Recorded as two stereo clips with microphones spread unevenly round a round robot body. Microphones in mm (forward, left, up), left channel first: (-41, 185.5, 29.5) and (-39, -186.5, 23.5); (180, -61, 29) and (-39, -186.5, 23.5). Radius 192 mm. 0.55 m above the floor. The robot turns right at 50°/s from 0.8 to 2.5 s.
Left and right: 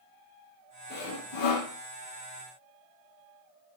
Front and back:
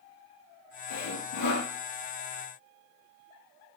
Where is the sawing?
20° left, 4 m; by 1.7 s 60° left, 4 m.